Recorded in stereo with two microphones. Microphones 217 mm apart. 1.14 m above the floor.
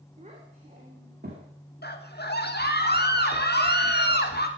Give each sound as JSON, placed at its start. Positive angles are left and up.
{"t": 0.2, "sound": "a child speaking", "side_deg": -30, "distance_m": 2.5}
{"t": 1.8, "sound": "a scream", "side_deg": 50, "distance_m": 1.9}